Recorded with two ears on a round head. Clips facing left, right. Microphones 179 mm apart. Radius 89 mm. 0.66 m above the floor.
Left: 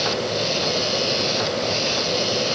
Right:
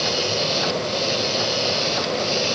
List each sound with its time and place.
Only background noise.